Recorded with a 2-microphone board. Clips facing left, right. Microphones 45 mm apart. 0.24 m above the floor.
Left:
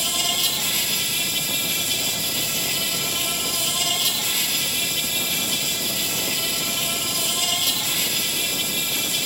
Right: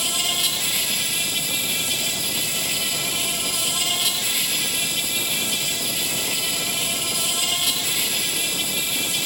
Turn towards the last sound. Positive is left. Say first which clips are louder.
# even
turn(degrees=-5)  # may be behind; listen again after turning